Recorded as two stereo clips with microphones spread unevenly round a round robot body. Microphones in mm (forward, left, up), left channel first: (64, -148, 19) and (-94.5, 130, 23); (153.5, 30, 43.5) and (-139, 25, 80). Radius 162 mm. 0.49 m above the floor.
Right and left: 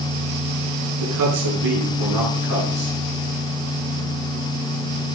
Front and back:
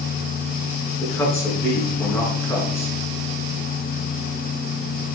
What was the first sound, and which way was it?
A man speaking, 80° left.